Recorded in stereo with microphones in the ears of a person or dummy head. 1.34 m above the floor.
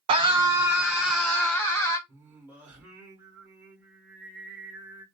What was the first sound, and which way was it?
A scream, 35° right (ahead or behind).